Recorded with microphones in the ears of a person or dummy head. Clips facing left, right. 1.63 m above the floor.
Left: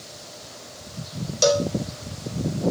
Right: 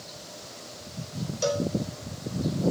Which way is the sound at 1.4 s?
75° left (ahead or behind).